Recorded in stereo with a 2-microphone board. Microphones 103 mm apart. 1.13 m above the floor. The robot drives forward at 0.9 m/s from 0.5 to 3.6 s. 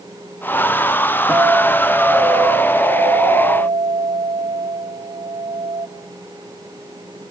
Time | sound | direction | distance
1.3 | a guitar | 15° right (ahead or behind) | 2.5 m